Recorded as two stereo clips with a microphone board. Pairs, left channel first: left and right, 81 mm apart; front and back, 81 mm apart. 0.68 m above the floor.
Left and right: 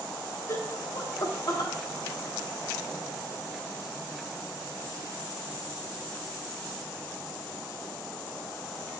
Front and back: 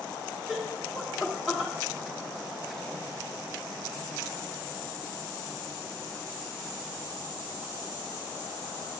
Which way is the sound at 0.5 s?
95° left.